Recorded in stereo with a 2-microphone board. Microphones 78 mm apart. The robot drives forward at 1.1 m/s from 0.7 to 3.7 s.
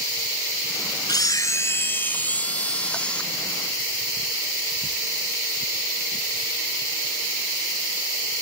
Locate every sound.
1.1 s a camera shutter: 65° left (ahead or behind); by 3.2 s 15° left (ahead or behind)